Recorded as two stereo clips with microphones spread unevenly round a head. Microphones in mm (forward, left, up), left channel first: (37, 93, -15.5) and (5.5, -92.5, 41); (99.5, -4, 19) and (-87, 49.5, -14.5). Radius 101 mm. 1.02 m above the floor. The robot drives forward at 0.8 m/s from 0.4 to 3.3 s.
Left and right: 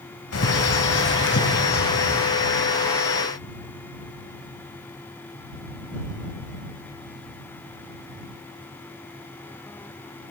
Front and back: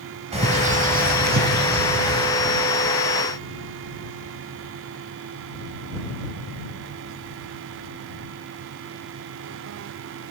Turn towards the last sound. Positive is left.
turn(degrees=145)